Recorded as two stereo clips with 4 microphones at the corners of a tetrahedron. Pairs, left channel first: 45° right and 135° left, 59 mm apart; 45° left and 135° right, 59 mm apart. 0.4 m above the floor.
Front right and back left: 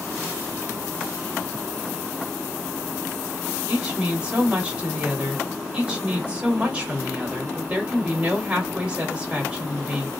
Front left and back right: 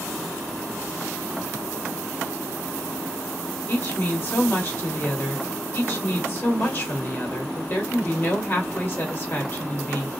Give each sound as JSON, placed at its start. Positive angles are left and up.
{"t": 3.7, "sound": "a woman speaking", "azimuth_deg": 75, "distance_m": 1.2}